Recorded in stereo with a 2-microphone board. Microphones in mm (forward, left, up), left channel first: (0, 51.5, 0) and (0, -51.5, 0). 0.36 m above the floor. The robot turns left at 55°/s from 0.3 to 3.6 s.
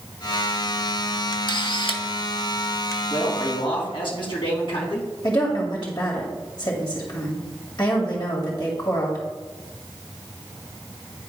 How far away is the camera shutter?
About 1.1 m.